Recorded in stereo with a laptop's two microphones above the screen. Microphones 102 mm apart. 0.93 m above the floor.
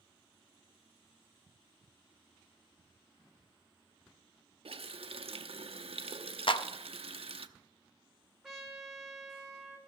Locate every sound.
4.7 s a running tap: 70° right (ahead or behind), 0.7 m
6.5 s a clap: 60° left (ahead or behind), 0.7 m
8.4 s a trumpet: centre (ahead or behind), 3.5 m